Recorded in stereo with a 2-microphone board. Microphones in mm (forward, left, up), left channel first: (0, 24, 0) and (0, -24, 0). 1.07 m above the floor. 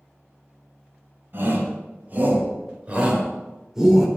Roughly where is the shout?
Right.